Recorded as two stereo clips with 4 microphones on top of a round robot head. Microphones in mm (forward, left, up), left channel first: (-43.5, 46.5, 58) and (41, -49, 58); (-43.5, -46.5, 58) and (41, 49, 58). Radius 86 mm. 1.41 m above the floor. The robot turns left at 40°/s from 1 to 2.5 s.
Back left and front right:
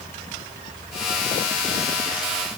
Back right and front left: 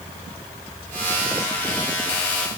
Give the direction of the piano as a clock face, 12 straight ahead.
No piano in this recording.